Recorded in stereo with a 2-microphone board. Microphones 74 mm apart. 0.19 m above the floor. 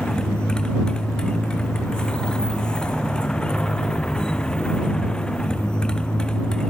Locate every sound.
0.0 s a motorcycle: 15° left (ahead or behind)